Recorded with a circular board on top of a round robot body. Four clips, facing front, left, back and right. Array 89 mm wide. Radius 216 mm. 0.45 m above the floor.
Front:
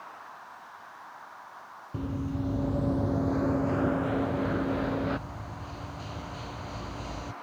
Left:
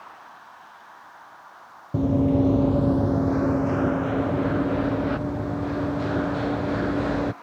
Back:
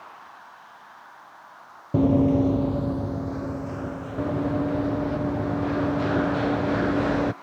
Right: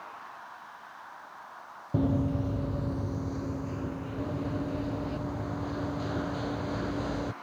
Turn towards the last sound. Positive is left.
turn(degrees=150)